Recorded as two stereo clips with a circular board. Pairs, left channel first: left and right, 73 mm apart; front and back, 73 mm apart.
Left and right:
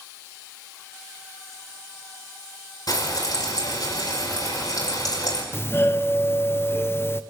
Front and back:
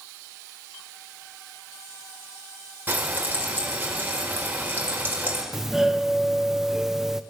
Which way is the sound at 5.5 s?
100° left.